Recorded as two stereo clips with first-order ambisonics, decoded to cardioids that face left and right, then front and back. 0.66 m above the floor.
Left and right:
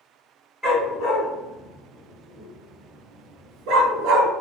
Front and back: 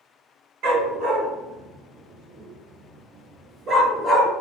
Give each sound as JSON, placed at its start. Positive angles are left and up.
{"t": 0.6, "sound": "a dog barking", "azimuth_deg": 170, "distance_m": 1.8}